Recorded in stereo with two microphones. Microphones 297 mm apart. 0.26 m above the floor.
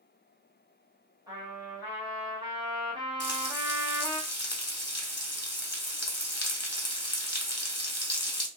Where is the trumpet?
15° right (ahead or behind), 1.1 m.